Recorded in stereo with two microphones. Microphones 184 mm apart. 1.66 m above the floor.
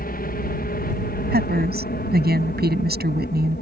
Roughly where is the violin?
I don't hear a violin.